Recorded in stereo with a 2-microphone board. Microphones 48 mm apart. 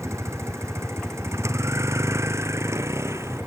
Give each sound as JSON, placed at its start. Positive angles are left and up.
{"t": 0.0, "sound": "a vehicle", "side_deg": -75}